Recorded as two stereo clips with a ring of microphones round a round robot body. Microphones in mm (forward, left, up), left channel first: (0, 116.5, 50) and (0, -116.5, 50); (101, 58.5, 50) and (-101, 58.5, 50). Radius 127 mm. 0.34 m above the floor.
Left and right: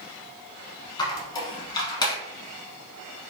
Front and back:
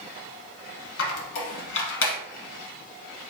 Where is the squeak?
15° left, 0.9 m.